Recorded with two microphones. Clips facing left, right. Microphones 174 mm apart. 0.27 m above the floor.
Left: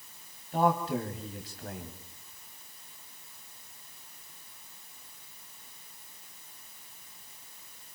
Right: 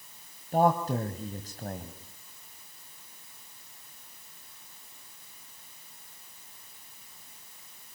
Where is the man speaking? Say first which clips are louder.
Right 2 dB; 45° right (ahead or behind), 1.8 m.